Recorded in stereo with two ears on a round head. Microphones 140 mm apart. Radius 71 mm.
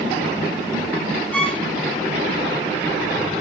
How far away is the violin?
About 4.5 m.